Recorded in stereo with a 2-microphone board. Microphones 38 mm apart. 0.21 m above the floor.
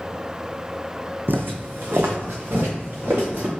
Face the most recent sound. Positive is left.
turn(degrees=-65)  # may be behind; listen again after turning